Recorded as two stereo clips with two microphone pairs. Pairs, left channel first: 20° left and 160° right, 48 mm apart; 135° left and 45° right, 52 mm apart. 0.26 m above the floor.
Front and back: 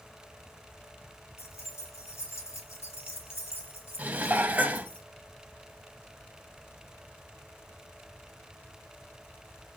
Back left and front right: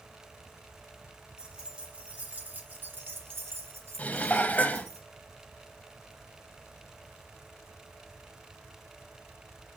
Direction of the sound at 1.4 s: 35° left.